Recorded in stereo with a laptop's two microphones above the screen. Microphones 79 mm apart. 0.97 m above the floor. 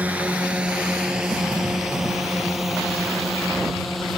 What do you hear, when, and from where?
0.0 s a drone: 15° right (ahead or behind); by 4.2 s centre (ahead or behind)